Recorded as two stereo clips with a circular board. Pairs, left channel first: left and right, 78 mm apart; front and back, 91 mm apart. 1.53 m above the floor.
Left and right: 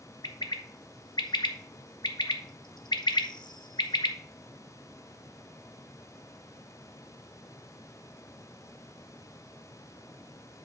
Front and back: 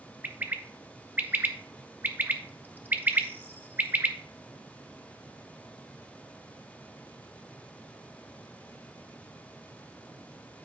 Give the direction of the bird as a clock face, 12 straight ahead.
8 o'clock.